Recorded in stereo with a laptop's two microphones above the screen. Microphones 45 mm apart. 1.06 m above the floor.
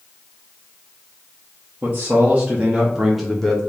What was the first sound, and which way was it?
A man speaking, 35° right (ahead or behind).